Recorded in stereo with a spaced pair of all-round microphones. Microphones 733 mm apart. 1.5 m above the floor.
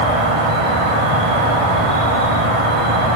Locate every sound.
0.0 s an insect: 45° right (ahead or behind), 1.0 m